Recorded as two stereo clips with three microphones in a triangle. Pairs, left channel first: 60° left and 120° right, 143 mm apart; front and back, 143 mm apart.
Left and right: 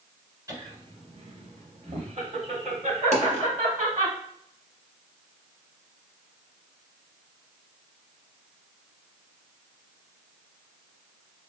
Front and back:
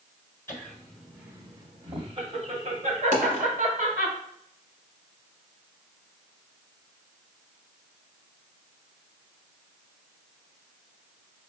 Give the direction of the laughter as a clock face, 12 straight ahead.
2 o'clock.